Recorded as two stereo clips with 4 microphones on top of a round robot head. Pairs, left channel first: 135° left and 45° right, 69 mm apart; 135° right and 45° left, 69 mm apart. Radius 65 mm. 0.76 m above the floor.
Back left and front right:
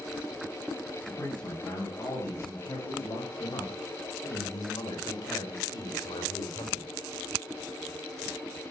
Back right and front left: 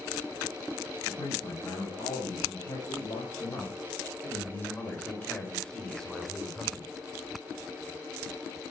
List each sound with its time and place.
1.1 s a man speaking: 165° right, 5 m; by 7.0 s 135° left, 3 m